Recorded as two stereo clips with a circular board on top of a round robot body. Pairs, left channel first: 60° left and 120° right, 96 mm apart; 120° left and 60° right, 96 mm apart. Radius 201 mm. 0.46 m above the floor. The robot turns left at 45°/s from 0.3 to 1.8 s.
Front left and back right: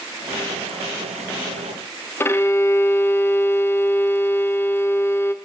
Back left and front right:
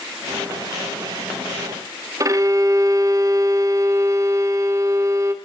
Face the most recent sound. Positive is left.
turn(degrees=-5)